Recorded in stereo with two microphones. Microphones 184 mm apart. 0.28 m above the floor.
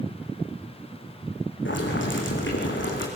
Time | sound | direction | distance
1.6 | boiling | 75° left (ahead or behind) | 5 m